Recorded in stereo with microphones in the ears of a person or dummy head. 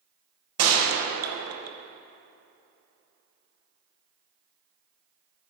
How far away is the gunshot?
About 1.8 m.